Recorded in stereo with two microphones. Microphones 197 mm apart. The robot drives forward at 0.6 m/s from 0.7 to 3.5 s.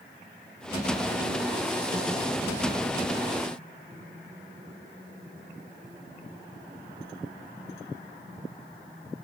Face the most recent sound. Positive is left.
No sound to turn to.